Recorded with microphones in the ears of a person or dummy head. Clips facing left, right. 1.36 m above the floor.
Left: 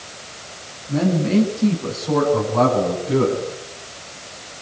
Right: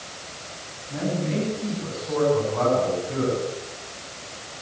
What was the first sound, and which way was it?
A man speaking, 70° left (ahead or behind).